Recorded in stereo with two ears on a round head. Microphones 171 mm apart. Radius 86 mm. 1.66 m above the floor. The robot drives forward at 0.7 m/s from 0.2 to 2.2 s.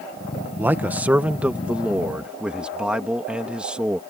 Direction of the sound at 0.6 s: 10° right (ahead or behind).